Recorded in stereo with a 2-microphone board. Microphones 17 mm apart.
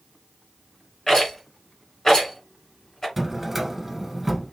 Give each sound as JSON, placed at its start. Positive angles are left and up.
{"t": 1.1, "sound": "a rattle", "side_deg": 35, "distance_m": 2.5}
{"t": 3.2, "sound": "a drawer", "side_deg": -10, "distance_m": 1.1}